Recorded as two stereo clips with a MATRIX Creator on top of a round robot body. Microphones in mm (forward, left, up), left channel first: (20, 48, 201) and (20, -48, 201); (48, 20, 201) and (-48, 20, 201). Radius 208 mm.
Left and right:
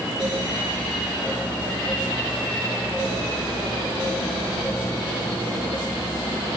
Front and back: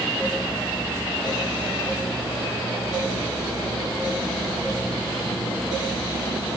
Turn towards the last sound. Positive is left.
No sound to turn to.